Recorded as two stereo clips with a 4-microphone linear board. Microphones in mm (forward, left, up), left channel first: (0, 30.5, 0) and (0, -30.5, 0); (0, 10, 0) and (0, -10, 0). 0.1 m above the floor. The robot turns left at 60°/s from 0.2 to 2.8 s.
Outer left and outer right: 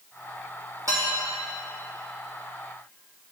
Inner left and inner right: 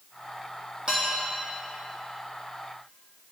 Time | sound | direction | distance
0.9 | dishes clattering | 50° right (ahead or behind) | 3.5 m